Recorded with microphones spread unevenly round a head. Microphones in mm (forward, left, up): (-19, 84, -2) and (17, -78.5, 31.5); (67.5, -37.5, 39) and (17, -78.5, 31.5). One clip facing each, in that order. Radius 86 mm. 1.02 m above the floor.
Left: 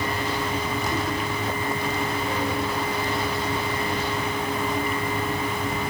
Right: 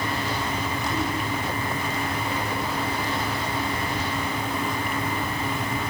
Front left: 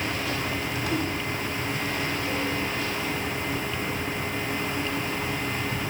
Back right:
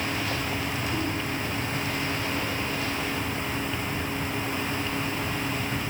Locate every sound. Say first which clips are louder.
0.0 s a fan: left 1 dB, even; 15° left, 1.8 m